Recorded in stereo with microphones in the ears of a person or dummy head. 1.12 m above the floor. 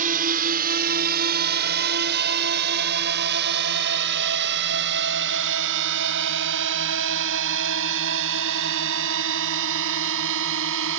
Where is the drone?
45° right (ahead or behind); by 11.0 s 70° right (ahead or behind).